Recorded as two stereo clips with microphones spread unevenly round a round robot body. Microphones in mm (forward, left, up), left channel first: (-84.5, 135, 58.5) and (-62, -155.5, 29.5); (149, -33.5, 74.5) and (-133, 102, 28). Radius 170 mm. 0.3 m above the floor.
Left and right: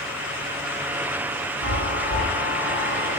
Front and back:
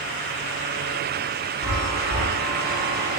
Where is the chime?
90° right, 3.5 m.